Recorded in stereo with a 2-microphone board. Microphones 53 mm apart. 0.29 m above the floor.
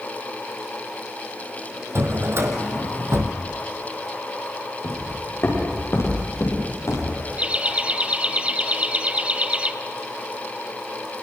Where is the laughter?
25° right (ahead or behind), 1.2 m.